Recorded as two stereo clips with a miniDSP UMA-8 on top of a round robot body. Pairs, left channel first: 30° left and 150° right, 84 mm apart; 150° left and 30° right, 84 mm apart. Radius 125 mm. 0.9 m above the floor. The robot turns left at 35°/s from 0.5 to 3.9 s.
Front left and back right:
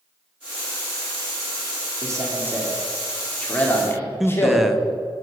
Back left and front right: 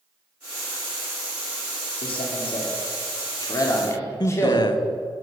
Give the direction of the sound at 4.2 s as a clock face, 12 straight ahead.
8 o'clock.